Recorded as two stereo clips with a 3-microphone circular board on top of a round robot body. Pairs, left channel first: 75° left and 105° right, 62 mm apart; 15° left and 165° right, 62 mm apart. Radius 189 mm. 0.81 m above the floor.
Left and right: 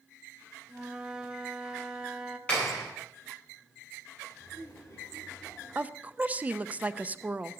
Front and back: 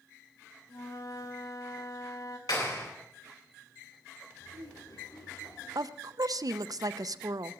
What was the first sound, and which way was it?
A flute, 25° right.